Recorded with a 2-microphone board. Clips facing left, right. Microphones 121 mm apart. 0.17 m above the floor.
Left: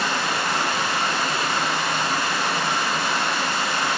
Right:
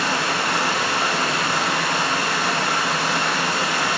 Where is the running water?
80° right, 1.3 m.